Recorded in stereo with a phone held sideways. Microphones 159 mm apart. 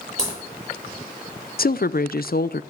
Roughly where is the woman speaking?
Left.